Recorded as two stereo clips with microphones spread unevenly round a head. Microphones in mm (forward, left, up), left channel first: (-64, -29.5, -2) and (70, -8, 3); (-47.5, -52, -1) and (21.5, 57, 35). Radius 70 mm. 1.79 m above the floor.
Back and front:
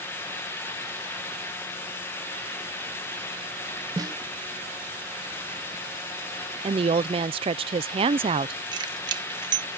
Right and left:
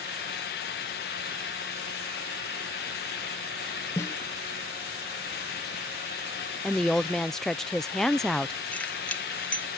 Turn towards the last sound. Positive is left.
turn(degrees=-25)